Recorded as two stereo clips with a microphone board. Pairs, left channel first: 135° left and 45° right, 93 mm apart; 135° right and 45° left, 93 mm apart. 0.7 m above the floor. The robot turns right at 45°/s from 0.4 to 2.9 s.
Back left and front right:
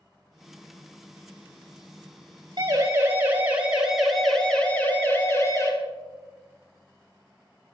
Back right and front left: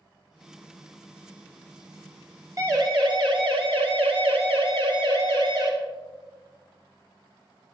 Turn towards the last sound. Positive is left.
turn(degrees=80)